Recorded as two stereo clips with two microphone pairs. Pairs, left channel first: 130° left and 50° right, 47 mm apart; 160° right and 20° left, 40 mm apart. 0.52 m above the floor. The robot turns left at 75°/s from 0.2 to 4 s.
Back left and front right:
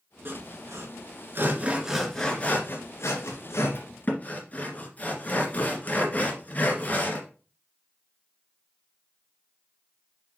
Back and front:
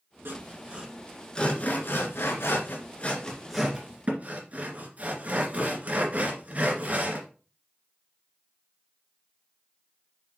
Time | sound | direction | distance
0.2 | sawing | 5° right | 1.9 m